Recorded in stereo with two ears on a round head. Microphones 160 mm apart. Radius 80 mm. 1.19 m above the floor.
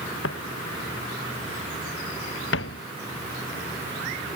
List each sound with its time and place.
0.2 s footsteps: 80° left; by 2.8 s 70° left (ahead or behind)